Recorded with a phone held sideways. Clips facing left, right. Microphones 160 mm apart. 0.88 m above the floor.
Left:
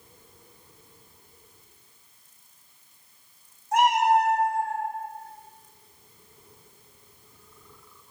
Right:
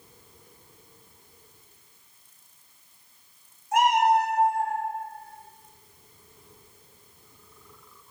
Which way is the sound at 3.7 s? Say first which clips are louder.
Even; 35° left (ahead or behind).